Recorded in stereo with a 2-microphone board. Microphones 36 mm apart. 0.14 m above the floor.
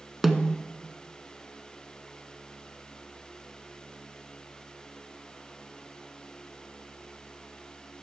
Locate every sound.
0.2 s a snare drum: centre (ahead or behind), 0.9 m